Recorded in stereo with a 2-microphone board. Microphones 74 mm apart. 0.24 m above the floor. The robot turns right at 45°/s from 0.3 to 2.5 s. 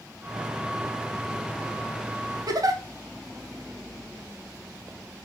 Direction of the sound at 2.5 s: 60° right (ahead or behind).